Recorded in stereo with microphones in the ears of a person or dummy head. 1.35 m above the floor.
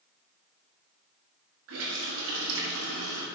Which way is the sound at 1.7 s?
75° right (ahead or behind).